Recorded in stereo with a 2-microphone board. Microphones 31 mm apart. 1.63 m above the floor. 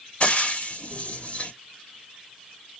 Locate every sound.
0.2 s frying: 45° left (ahead or behind), 1.3 m